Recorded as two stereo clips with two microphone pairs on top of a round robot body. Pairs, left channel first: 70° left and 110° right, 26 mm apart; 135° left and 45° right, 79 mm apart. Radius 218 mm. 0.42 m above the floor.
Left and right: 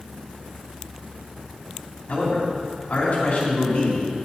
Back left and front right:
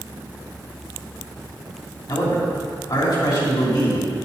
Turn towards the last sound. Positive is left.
turn(degrees=110)